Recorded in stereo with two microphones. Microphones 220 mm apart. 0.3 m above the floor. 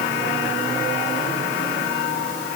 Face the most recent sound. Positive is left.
No sound to turn to.